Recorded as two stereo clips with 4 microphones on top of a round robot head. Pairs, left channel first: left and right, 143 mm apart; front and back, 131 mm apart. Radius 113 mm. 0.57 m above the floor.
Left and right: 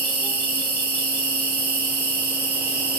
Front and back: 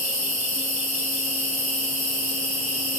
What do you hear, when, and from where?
0.0 s an insect: 120° right, 2 m